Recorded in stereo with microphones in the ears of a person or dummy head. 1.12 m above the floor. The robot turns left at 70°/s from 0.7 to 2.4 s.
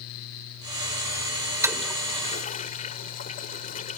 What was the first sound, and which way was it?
A toilet flushing, 10° right (ahead or behind).